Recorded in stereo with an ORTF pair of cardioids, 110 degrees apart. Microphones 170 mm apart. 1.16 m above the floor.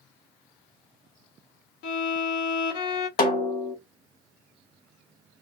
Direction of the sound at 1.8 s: 70° left.